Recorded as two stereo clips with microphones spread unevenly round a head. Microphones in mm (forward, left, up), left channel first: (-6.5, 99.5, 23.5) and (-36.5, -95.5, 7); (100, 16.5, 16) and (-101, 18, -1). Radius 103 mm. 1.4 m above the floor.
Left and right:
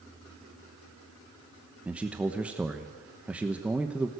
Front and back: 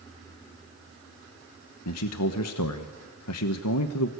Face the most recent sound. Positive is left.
turn(degrees=-15)